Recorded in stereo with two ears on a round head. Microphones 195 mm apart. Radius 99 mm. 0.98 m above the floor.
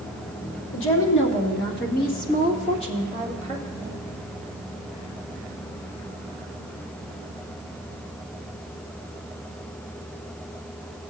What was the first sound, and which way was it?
A woman speaking, 65° left (ahead or behind).